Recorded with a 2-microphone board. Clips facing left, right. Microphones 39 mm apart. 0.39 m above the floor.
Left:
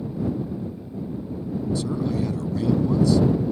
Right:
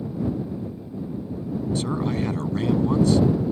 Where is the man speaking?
50° right (ahead or behind).